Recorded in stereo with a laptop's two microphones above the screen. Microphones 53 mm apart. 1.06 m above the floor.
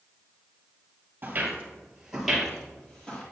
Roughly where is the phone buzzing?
I don't hear a phone buzzing.